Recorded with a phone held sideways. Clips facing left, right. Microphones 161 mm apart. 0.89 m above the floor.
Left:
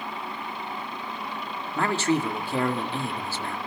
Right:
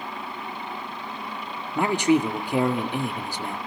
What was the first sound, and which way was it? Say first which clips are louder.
A man speaking: right 4 dB; 15° right (ahead or behind).